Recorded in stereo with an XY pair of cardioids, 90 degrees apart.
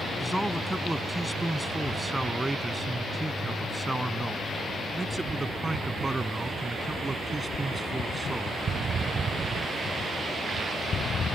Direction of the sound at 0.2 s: 10° right.